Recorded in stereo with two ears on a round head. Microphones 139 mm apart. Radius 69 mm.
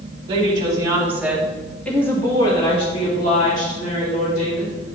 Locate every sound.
0.3 s a woman speaking: 35° right (ahead or behind), 2.0 m; by 5.0 s 65° left (ahead or behind), 3 m